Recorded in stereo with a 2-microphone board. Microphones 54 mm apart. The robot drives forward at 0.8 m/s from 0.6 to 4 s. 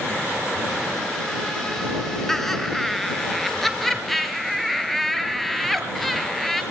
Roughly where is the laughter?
Centre.